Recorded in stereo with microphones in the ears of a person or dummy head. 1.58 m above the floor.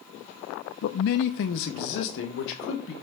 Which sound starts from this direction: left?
A man speaking, at 0.8 s.